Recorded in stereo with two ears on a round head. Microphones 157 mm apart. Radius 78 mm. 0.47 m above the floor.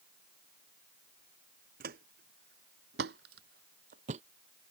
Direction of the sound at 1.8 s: 55° right (ahead or behind).